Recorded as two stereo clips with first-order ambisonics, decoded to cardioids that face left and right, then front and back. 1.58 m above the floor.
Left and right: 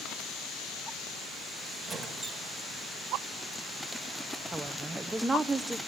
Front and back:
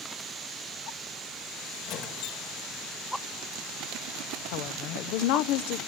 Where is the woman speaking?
10° right, 0.7 m.